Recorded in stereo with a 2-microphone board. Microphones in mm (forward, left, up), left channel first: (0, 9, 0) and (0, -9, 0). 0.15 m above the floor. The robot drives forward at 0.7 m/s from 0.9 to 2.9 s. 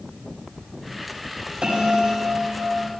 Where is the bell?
65° right (ahead or behind), 4 m.